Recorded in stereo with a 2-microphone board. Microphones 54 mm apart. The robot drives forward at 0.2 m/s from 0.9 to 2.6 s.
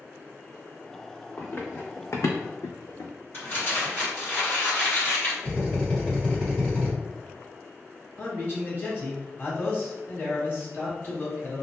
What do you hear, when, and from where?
1.4 s running footsteps: 30° left (ahead or behind), 0.8 m; by 3.1 s 50° left (ahead or behind), 0.7 m
3.3 s crumpling: 45° left (ahead or behind), 1.8 m
5.4 s a drill: 20° left (ahead or behind), 1.7 m
8.2 s a man speaking: 40° left (ahead or behind), 1.4 m